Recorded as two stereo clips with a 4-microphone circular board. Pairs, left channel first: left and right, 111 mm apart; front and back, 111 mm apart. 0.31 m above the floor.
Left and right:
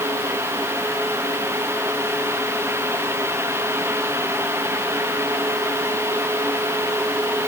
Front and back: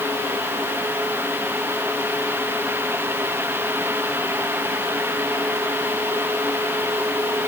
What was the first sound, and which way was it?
Only background noise.